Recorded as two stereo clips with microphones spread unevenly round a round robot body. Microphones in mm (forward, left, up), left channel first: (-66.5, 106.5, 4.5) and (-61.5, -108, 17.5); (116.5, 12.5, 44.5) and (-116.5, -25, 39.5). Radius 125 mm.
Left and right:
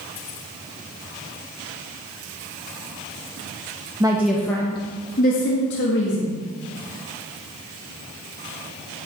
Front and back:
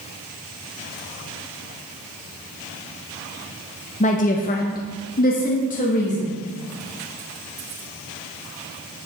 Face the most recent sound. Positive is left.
turn(degrees=70)